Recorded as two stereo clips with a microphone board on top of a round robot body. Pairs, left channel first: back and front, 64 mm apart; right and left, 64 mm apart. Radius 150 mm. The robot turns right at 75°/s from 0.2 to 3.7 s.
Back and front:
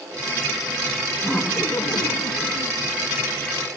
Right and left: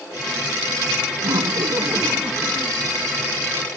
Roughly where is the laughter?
Left.